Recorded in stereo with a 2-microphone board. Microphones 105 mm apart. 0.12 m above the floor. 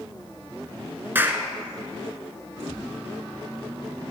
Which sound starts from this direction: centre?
A clap, at 1.1 s.